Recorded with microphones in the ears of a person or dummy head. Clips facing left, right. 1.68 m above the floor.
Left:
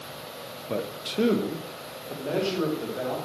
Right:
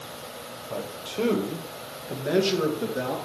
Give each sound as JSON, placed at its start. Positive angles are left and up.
{"t": 0.7, "sound": "a man speaking", "side_deg": 40, "distance_m": 0.9}